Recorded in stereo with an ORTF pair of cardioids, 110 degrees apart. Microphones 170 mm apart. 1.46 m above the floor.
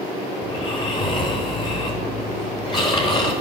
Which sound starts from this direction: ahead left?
Snoring, at 0.4 s.